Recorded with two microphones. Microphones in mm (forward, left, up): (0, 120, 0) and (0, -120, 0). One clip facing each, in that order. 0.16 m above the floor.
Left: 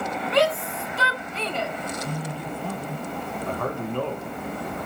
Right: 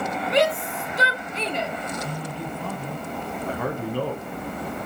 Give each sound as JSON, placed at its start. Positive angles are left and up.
{"t": 0.3, "sound": "a shout", "side_deg": -20, "distance_m": 1.1}
{"t": 2.0, "sound": "a man speaking", "side_deg": 10, "distance_m": 3.5}
{"t": 3.5, "sound": "a man speaking", "side_deg": -5, "distance_m": 1.6}